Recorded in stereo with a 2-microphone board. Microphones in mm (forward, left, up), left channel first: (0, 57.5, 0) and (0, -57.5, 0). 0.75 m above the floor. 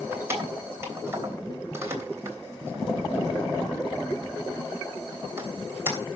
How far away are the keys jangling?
About 3 m.